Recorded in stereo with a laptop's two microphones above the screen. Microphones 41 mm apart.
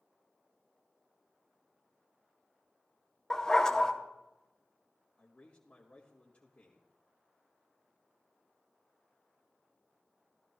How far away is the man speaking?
About 1.4 m.